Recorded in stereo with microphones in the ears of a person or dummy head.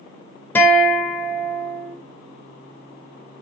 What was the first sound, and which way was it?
A guitar, 15° left (ahead or behind).